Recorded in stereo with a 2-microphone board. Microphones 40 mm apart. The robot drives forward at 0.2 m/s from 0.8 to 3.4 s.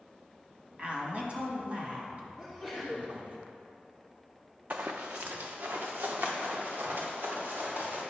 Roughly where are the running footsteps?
Right.